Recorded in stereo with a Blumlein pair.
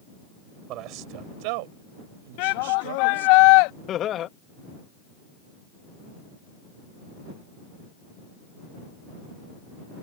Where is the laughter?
30° left.